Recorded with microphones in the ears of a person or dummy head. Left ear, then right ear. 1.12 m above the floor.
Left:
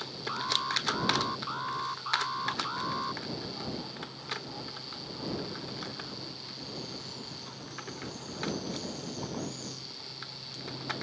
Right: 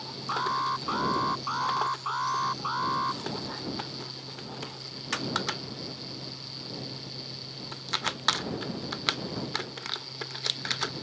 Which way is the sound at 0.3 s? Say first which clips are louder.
Right 2 dB; 25° right (ahead or behind).